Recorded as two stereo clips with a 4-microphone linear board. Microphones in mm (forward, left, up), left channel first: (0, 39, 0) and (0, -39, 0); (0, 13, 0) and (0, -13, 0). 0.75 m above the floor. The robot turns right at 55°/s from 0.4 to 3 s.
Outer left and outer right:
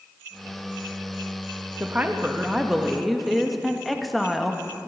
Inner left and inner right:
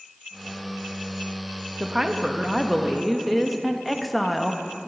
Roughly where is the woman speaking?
Right.